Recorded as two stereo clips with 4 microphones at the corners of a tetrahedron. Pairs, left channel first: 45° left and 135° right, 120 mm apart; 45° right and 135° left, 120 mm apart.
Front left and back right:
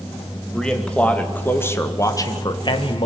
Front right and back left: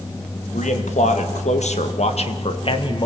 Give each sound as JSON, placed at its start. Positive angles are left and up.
{"t": 0.5, "sound": "a man speaking", "azimuth_deg": -40, "distance_m": 2.5}